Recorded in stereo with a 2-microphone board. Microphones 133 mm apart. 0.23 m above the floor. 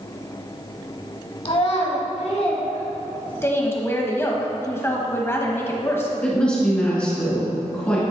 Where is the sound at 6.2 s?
10° left (ahead or behind), 2 m.